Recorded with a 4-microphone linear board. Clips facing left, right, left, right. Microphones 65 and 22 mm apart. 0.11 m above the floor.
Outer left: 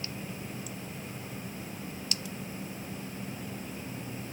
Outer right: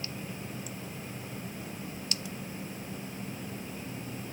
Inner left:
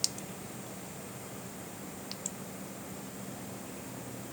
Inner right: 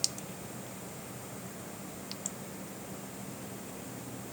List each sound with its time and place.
Only background noise.